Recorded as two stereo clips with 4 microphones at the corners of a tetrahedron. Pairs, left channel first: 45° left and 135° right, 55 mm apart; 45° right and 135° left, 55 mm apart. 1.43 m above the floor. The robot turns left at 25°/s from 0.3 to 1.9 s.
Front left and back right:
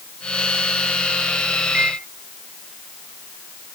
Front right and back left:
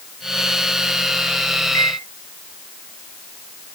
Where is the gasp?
No gasp in this recording.